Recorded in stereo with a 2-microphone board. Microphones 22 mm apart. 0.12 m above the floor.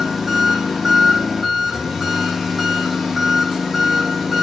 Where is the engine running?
10° right (ahead or behind), 5.5 m.